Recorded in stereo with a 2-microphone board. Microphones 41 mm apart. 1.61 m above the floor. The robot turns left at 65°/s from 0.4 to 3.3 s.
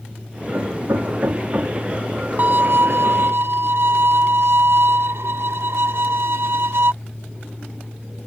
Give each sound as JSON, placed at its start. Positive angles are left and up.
{"t": 0.5, "sound": "hammering", "side_deg": -70}
{"t": 2.4, "sound": "a violin", "azimuth_deg": -45}